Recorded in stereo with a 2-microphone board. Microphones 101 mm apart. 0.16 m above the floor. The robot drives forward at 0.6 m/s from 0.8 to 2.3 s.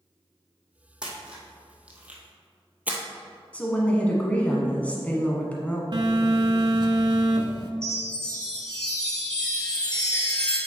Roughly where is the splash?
Centre.